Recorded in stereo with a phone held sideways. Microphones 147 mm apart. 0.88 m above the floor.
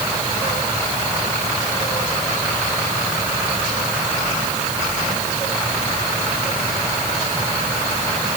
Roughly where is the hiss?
No hiss in this recording.